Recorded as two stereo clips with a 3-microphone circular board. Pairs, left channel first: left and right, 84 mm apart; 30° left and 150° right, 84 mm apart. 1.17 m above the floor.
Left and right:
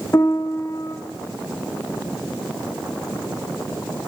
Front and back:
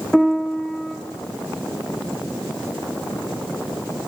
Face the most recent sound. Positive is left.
turn(degrees=115)